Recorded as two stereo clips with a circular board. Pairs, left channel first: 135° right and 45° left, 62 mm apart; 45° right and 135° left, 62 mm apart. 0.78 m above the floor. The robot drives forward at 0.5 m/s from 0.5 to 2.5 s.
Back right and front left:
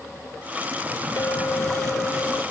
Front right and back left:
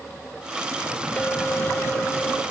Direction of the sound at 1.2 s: 110° right.